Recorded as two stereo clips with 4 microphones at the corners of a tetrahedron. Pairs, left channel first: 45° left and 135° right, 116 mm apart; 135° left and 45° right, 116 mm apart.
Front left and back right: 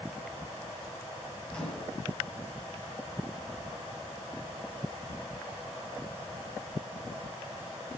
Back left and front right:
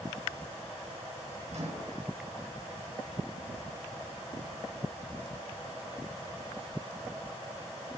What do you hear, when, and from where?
1.5 s a microwave: 40° right, 3.5 m